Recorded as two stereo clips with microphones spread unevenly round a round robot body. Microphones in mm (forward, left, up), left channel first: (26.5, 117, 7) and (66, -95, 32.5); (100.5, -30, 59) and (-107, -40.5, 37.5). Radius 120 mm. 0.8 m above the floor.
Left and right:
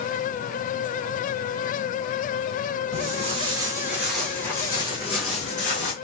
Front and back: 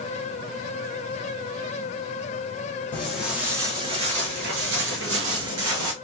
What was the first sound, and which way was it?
Footsteps, 70° right.